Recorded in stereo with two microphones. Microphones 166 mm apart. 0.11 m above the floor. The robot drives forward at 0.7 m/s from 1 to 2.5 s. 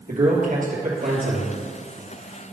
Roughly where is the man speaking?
Right.